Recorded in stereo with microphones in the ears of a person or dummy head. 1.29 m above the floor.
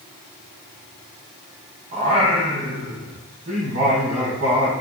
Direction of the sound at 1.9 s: 40° right (ahead or behind).